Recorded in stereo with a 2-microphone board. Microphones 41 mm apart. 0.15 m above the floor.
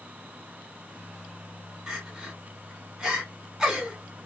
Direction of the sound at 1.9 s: 10° right (ahead or behind).